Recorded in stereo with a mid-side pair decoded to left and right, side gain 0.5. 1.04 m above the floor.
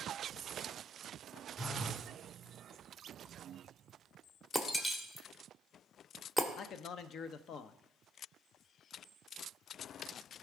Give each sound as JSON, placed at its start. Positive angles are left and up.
{"t": 1.6, "sound": "a phone buzzing", "azimuth_deg": 0, "distance_m": 0.8}
{"t": 4.5, "sound": "breaking glass", "azimuth_deg": 10, "distance_m": 1.2}
{"t": 6.6, "sound": "a man speaking", "azimuth_deg": 60, "distance_m": 0.7}